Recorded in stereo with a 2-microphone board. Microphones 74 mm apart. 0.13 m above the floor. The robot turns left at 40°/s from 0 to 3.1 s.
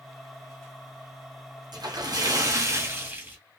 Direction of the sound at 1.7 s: 95° right.